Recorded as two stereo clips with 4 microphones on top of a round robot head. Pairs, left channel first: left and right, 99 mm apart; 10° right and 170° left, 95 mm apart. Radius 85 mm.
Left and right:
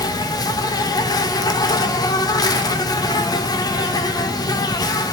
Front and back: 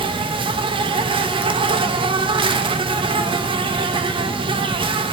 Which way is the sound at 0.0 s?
140° left.